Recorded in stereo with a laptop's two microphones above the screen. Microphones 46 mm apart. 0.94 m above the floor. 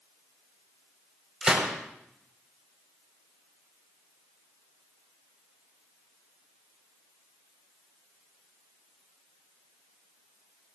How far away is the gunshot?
About 5.5 m.